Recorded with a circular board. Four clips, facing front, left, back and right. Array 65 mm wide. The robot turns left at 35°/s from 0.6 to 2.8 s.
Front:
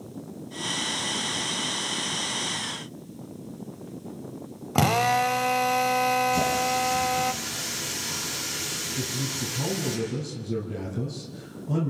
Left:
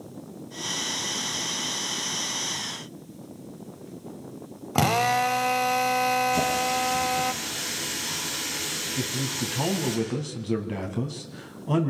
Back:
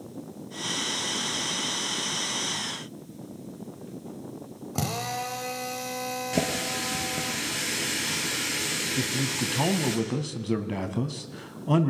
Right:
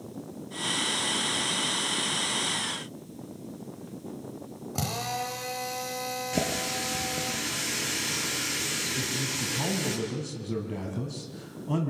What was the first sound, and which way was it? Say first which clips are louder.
A drill: left 11 dB, front 10 dB; 45° left.